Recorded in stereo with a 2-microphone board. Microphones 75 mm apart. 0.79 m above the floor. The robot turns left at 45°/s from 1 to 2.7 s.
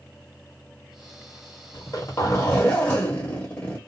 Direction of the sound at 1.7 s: 75° left.